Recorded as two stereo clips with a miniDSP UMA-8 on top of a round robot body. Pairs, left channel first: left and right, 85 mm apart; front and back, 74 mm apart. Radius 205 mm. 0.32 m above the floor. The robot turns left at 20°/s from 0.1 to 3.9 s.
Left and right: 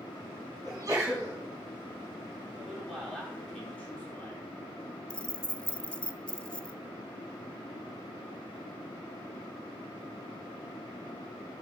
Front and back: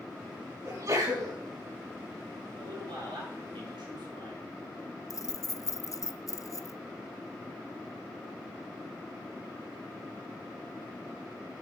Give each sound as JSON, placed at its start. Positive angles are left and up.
{"t": 0.7, "sound": "a sneeze", "azimuth_deg": -135, "distance_m": 5.5}
{"t": 2.6, "sound": "a man speaking", "azimuth_deg": -175, "distance_m": 6.0}
{"t": 5.1, "sound": "keys jangling", "azimuth_deg": 15, "distance_m": 0.7}